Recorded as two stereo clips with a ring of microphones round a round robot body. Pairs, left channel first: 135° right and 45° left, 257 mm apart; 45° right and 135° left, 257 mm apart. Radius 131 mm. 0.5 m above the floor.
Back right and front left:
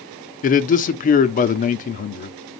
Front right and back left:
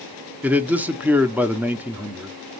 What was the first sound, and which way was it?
A man speaking, 145° right.